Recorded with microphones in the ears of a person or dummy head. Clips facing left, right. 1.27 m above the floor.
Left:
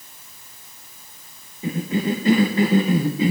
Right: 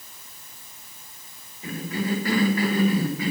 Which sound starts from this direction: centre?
A cough, at 1.6 s.